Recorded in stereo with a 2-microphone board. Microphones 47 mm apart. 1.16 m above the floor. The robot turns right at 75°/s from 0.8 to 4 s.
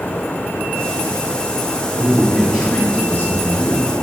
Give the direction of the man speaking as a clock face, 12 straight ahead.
2 o'clock.